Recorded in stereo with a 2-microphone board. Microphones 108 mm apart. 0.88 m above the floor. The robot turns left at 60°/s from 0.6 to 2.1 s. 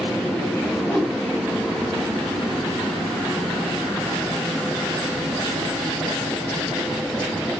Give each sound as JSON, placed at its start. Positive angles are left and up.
{"t": 0.8, "sound": "a whoosh", "side_deg": 15, "distance_m": 5.5}